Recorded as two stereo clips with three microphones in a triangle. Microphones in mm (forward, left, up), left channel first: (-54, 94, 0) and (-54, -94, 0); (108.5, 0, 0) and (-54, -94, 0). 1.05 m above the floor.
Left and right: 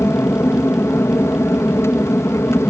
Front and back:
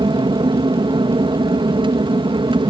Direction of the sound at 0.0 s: 160° left.